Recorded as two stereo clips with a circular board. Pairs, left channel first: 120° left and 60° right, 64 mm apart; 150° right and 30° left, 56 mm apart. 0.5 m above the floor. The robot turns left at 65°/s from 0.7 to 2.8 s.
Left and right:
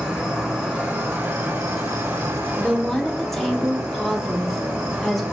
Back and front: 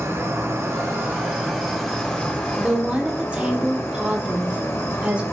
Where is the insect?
15° left, 1.0 m; by 5.3 s 120° right, 1.0 m.